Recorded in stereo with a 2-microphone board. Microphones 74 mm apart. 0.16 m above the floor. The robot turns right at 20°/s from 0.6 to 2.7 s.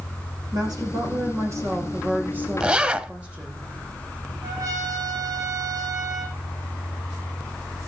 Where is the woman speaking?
60° right, 7 m; by 3.6 s 15° right, 7 m.